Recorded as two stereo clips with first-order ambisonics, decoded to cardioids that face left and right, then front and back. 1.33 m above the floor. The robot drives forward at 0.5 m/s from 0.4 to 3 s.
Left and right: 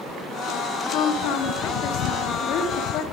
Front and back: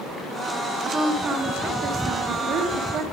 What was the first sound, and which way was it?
A woman speaking, 110° left.